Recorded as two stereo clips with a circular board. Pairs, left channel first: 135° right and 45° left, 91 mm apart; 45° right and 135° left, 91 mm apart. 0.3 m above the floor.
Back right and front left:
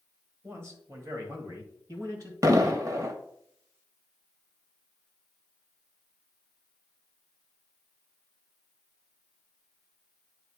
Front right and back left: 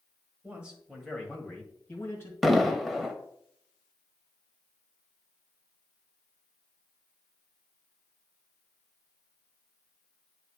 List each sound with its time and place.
0.4 s a man speaking: 80° left, 1.8 m; by 2.3 s 5° left, 2.5 m
2.4 s an explosion: 45° left, 0.8 m